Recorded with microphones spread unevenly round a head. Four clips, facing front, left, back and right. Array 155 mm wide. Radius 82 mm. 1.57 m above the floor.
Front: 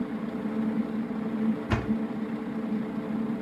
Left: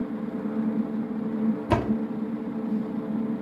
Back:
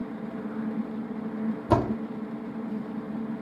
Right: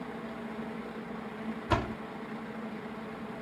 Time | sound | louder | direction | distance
0.0 | a fan | left 10 dB, front 3 dB | 80° left | ?
1.7 | a door slam | left 4 dB, back 5 dB | 150° left | ?